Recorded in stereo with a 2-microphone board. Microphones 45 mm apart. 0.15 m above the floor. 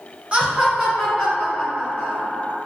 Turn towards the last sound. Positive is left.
turn(degrees=40)  # may be behind; listen again after turning